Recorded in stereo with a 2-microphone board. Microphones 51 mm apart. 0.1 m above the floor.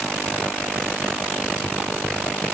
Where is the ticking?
I don't hear ticking.